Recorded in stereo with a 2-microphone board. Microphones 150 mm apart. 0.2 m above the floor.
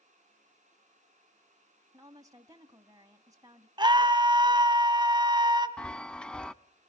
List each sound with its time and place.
1.9 s a woman speaking: 20° right (ahead or behind), 1.3 m
3.8 s a scream: 30° right (ahead or behind), 1.4 m
5.8 s a chime: 5° left (ahead or behind), 0.5 m